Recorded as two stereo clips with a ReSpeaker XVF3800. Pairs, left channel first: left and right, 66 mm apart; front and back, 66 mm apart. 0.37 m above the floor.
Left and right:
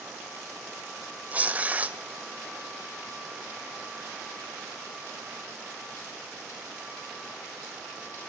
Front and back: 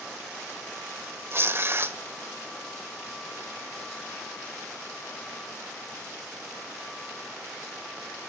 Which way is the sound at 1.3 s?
145° right.